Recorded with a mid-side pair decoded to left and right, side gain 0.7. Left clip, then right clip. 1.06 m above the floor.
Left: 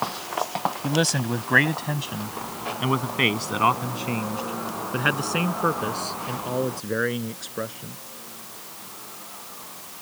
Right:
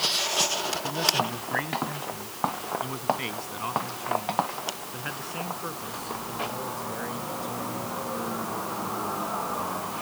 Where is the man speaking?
45° left; by 7.9 s 50° left.